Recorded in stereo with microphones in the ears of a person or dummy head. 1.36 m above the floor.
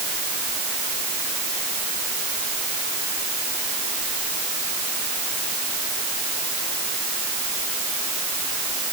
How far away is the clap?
I don't hear a clap.